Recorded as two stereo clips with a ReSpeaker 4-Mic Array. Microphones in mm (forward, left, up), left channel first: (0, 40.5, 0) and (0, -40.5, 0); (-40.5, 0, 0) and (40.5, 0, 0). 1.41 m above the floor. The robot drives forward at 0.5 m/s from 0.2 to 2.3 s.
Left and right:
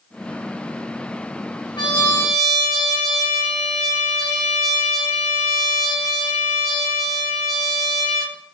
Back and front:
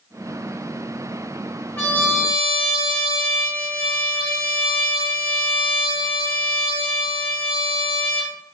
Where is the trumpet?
115° left, 1.5 m; by 8.4 s 125° left, 1.7 m.